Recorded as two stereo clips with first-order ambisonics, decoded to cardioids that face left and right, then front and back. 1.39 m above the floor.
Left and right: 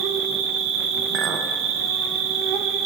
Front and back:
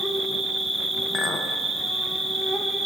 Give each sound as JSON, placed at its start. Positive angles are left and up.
{"t": 0.0, "sound": "an insect", "azimuth_deg": -95, "distance_m": 0.7}
{"t": 1.1, "sound": "a clink", "azimuth_deg": -55, "distance_m": 0.6}